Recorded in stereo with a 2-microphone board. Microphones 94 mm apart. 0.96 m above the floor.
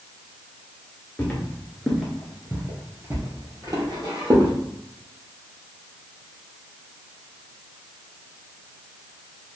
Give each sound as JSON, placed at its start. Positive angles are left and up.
{"t": 1.2, "sound": "footsteps", "side_deg": 20, "distance_m": 0.9}